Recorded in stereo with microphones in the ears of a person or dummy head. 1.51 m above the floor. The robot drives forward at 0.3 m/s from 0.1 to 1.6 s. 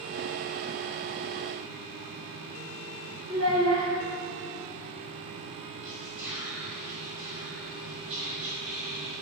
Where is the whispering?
10° right (ahead or behind), 0.7 m.